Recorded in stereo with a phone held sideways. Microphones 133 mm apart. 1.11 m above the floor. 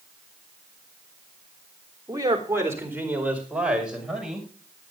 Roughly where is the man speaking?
Right.